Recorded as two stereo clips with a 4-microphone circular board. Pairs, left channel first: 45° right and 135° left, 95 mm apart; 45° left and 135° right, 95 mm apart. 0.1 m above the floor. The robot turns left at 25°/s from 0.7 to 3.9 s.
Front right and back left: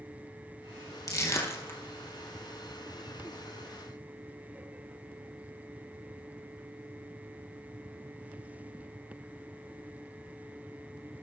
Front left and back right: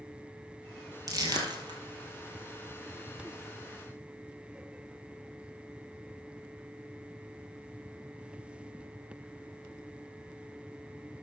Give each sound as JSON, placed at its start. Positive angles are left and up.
{"t": 1.1, "sound": "crushing", "azimuth_deg": -90, "distance_m": 1.5}